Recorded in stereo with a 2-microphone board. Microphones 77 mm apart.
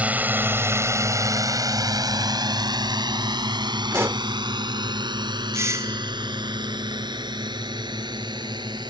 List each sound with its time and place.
0.0 s a drone: 20° right (ahead or behind); by 8.9 s 70° right (ahead or behind)
3.9 s a pop: 35° right (ahead or behind)
5.5 s a doorbell: 40° right (ahead or behind)